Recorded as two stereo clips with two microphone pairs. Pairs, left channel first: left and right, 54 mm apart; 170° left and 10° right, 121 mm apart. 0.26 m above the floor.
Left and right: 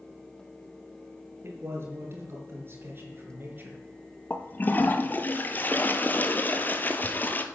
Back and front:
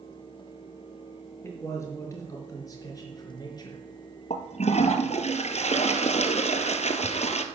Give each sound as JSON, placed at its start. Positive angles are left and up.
{"t": 1.4, "sound": "a man speaking", "azimuth_deg": -120, "distance_m": 5.0}
{"t": 4.3, "sound": "a toilet flushing", "azimuth_deg": 145, "distance_m": 1.0}